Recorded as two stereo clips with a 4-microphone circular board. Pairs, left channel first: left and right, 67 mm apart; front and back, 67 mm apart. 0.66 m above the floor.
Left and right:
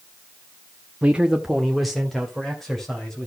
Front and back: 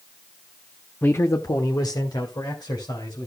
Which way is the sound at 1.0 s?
45° right.